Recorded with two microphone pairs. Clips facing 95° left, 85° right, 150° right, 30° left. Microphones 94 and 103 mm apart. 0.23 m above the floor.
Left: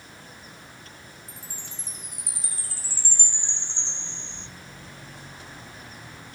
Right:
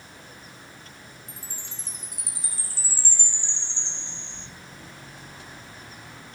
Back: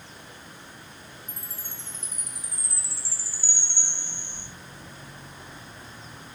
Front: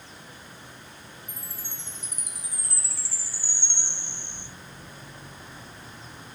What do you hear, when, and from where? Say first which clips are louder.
1.3 s a chime: even, even; 55° left, 4 m